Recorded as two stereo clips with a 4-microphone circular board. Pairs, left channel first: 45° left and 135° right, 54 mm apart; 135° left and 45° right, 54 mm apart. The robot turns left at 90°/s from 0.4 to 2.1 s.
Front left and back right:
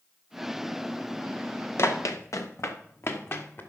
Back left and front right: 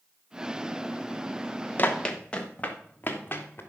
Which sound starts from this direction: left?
Running footsteps, at 1.8 s.